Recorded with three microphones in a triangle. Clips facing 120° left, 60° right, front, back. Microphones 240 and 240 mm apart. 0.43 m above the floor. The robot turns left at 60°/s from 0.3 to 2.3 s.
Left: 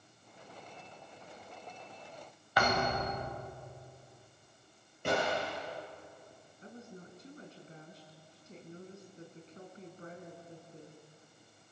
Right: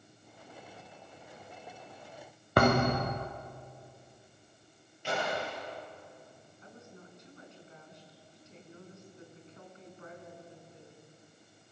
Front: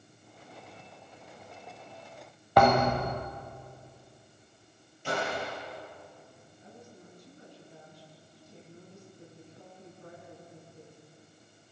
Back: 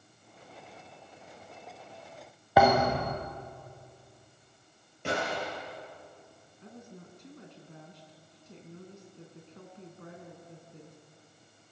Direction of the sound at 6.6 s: 175° left.